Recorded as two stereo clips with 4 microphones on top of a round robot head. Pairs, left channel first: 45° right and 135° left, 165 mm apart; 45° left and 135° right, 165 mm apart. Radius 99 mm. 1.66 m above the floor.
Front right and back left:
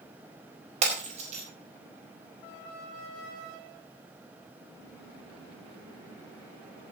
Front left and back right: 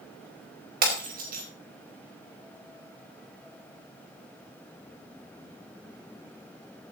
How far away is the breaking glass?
About 4.5 m.